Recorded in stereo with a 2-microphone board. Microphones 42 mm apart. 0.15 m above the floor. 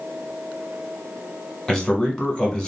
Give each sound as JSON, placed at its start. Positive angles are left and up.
{"t": 1.7, "sound": "a man speaking", "side_deg": 15, "distance_m": 1.0}